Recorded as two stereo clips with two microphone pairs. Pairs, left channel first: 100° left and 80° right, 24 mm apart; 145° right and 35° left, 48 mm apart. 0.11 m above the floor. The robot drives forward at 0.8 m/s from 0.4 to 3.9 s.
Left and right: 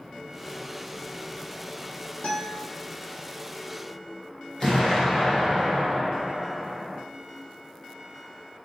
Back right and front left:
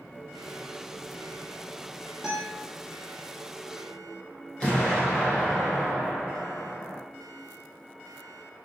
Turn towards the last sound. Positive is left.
turn(degrees=150)